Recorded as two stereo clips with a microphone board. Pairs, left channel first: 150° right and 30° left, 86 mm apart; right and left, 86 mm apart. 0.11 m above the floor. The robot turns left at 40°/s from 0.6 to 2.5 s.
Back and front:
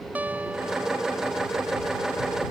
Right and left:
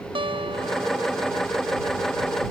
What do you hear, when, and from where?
0.1 s a guitar: 100° left; by 1.4 s 70° left